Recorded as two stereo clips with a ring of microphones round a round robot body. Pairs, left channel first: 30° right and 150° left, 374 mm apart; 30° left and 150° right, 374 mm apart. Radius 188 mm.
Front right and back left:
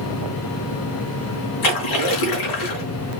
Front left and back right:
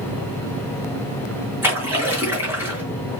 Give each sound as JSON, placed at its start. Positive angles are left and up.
{"t": 1.6, "sound": "a splash", "azimuth_deg": -65, "distance_m": 4.0}